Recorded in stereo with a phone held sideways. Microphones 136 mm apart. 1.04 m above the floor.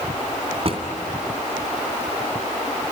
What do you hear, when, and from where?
0.7 s a drawer: 45° right (ahead or behind), 2.5 m